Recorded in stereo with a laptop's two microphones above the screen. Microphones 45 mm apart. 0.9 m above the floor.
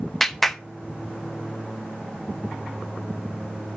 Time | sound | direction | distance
0.2 | a clap | 5° left (ahead or behind) | 0.6 m